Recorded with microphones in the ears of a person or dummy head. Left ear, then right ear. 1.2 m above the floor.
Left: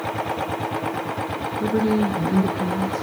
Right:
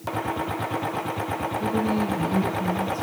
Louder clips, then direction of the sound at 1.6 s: Left 6 dB; 25° left (ahead or behind).